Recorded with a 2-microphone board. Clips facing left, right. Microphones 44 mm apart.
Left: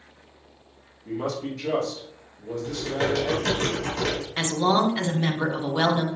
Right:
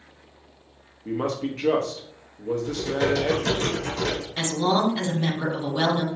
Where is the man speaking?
45° right (ahead or behind), 0.8 m.